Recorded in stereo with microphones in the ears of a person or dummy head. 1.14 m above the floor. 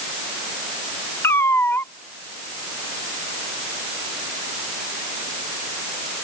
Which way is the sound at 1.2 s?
15° left (ahead or behind).